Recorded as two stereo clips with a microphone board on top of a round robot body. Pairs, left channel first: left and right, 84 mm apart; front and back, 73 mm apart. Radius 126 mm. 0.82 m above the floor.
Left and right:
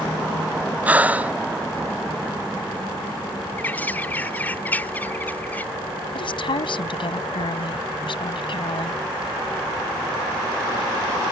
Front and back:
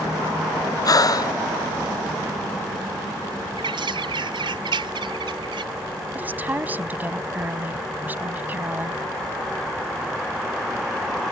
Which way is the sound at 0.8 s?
20° right.